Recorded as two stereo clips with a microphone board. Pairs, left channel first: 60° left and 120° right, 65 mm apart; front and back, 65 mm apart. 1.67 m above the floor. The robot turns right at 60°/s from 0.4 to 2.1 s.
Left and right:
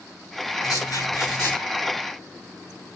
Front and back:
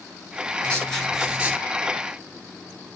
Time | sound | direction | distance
0.6 | writing | 65° left | 7 m